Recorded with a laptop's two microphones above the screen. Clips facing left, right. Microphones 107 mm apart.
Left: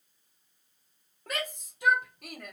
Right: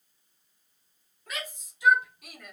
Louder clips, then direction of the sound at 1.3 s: Left 4 dB; 55° left (ahead or behind).